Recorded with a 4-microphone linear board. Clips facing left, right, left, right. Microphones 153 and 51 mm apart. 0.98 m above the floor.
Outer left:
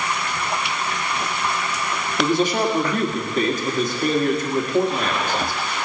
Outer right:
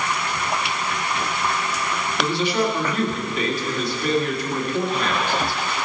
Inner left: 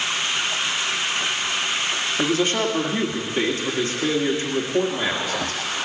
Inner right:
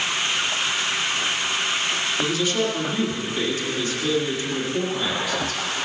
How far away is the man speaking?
About 1.8 m.